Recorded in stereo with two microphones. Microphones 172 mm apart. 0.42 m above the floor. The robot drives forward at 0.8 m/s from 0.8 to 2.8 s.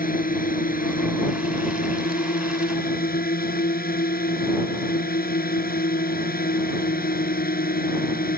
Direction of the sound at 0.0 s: 60° left (ahead or behind).